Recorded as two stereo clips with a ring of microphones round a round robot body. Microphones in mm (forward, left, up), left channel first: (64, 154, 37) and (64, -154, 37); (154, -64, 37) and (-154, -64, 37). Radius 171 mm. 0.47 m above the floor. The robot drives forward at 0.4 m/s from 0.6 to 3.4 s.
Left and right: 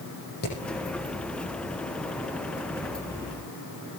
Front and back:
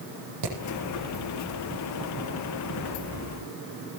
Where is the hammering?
150° left, 7.5 m.